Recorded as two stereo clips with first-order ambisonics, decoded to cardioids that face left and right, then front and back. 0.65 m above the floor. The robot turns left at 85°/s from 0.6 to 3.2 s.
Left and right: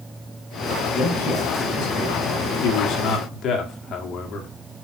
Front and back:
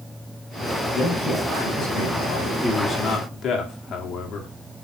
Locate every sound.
0.9 s a man speaking: 125° left, 3.5 m; by 2.5 s 10° right, 3.5 m
2.6 s a man speaking: 95° left, 1.7 m; by 4.5 s 45° left, 1.7 m